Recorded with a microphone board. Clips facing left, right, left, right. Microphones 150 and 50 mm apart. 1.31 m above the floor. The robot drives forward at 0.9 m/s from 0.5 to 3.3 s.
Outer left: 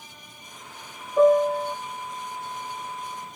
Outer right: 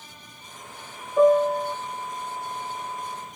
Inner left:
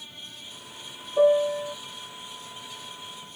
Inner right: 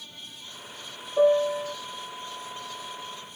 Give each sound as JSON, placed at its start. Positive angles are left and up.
{"t": 1.2, "sound": "a piano", "side_deg": 0}